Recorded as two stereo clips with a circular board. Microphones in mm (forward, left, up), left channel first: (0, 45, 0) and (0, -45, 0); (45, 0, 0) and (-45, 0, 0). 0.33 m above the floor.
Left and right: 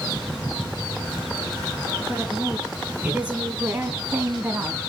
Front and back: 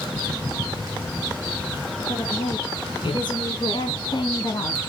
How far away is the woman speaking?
About 3.5 m.